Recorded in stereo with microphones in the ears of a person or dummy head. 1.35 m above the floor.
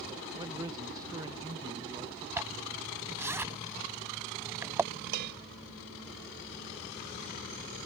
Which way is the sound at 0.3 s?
20° right (ahead or behind).